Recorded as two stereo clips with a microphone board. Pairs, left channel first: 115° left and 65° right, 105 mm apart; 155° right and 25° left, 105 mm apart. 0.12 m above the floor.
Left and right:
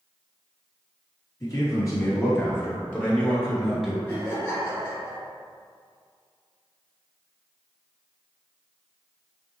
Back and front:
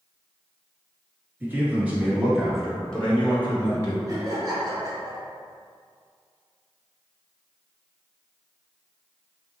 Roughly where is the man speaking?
Left.